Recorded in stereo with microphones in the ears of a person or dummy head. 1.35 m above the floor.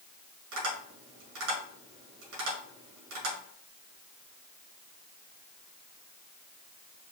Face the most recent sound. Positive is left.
turn(degrees=-75)  # may be behind; listen again after turning